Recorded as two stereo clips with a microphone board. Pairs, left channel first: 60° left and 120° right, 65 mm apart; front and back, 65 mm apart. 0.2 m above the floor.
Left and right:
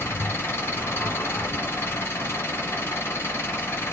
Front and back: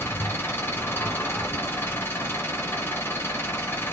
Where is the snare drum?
I don't hear a snare drum.